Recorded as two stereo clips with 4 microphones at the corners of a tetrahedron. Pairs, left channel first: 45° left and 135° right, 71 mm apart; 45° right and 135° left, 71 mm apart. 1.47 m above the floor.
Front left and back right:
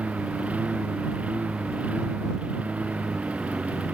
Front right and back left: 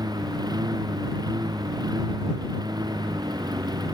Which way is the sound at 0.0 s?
155° left.